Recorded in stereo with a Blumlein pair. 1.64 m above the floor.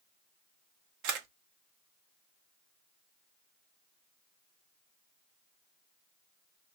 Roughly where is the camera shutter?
Ahead right.